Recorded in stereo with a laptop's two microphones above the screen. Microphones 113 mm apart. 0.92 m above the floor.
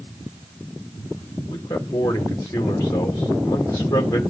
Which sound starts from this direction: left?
A man speaking, at 1.5 s.